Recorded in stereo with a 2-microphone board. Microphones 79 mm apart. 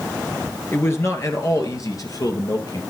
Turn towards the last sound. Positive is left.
turn(degrees=50)  # may be behind; listen again after turning